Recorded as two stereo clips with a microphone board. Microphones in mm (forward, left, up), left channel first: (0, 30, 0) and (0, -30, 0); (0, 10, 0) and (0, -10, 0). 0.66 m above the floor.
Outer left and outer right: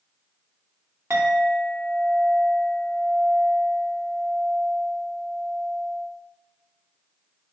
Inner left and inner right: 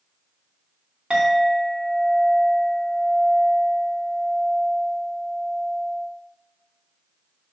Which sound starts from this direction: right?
A clink, at 1.1 s.